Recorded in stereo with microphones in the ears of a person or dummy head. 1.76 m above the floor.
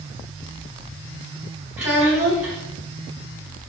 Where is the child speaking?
10° right (ahead or behind), 0.7 m.